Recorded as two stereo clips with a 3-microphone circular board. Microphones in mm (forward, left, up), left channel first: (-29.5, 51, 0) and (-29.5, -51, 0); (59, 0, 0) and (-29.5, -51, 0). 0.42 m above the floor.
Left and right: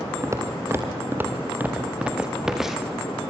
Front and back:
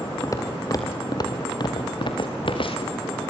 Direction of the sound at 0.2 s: 30° right.